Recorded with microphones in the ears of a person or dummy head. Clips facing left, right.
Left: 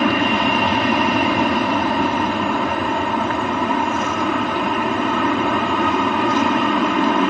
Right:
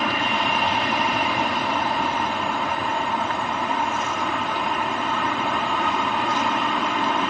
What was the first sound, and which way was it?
An aircraft, 50° left (ahead or behind).